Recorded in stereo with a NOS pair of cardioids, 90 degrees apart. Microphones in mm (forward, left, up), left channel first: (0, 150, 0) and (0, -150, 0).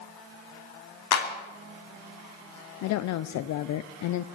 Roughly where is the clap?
Ahead left.